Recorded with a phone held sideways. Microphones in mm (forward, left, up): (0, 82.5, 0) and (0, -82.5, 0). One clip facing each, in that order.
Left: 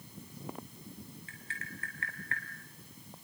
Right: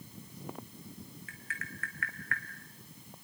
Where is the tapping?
30° left (ahead or behind), 3.5 m.